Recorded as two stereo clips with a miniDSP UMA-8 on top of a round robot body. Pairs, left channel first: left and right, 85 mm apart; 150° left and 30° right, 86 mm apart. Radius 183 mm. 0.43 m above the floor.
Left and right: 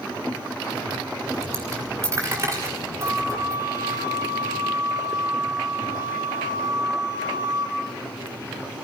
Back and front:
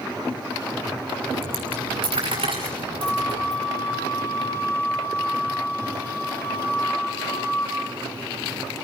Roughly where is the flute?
Behind right.